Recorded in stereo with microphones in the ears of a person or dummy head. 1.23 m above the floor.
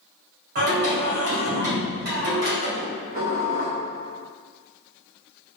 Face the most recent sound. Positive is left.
turn(degrees=-45)  # may be behind; listen again after turning